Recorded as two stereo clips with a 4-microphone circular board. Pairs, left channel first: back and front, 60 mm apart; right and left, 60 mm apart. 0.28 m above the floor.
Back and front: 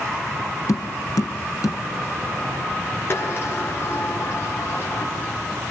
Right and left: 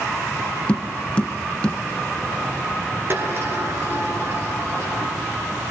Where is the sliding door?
135° left, 4.5 m.